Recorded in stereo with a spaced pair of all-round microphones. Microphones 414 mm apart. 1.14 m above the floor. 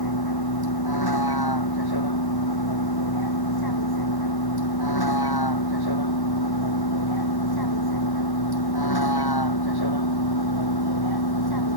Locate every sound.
0.0 s a vehicle: 60° left (ahead or behind)